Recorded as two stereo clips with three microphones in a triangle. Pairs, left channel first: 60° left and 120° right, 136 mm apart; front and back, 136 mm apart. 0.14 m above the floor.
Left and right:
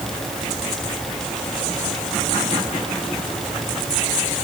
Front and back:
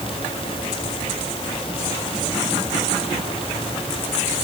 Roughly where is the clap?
No clap in this recording.